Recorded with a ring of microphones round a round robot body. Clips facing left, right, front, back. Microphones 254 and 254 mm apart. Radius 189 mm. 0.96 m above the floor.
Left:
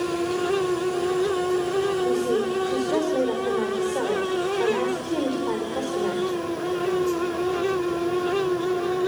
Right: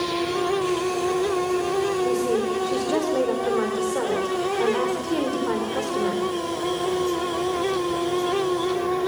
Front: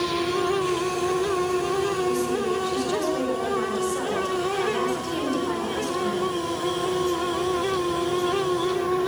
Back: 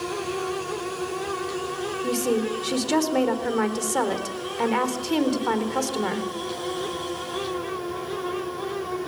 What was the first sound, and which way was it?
A woman speaking, 175° right.